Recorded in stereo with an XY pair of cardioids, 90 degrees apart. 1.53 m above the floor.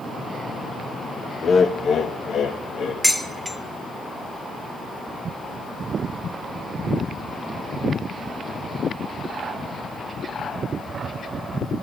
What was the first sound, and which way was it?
Laughter, 50° left.